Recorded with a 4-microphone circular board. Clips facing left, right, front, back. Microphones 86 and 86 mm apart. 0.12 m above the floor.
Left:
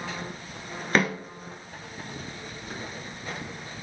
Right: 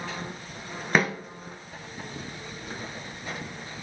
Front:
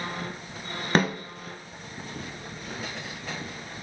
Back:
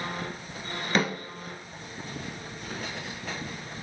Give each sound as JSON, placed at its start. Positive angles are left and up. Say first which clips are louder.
{"t": 0.9, "sound": "a snare drum", "louder": "even, front 3 dB", "azimuth_deg": -10, "distance_m": 0.8}